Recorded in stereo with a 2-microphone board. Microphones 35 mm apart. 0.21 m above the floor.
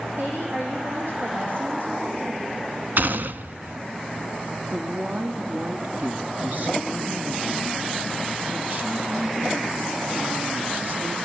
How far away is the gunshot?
About 0.6 m.